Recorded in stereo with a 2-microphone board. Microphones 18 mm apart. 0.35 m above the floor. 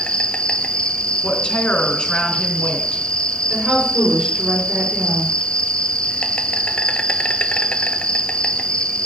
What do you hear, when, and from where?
0.0 s an insect: 70° left (ahead or behind), 1.1 m
1.2 s a woman speaking: 70° left (ahead or behind), 4 m
3.5 s a woman speaking: 50° right (ahead or behind), 6.5 m